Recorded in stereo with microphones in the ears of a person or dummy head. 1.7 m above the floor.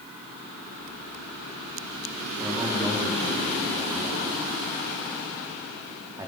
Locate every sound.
2.4 s a man speaking: 10° right (ahead or behind), 4.5 m